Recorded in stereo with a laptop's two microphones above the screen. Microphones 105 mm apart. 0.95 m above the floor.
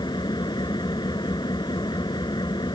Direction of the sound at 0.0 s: 45° left (ahead or behind).